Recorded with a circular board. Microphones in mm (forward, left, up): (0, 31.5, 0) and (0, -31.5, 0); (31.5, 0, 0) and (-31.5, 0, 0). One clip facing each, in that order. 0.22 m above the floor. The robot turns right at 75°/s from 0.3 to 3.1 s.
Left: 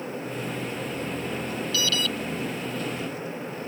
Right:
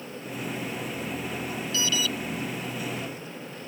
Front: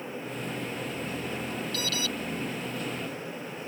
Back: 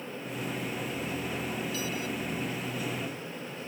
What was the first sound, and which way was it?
An alarm, 25° right.